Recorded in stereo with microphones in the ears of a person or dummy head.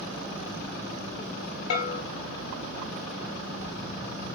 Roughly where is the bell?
Left.